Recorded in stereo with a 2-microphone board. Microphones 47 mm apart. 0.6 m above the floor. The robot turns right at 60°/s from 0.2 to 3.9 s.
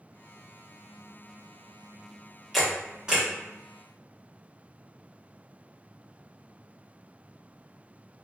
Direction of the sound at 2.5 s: Centre (ahead or behind).